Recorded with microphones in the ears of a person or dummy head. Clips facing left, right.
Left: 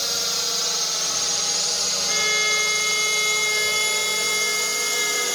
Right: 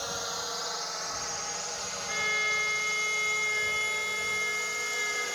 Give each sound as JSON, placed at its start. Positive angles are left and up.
{"t": 0.0, "sound": "a drone", "side_deg": 40}
{"t": 2.1, "sound": "a violin", "side_deg": 65}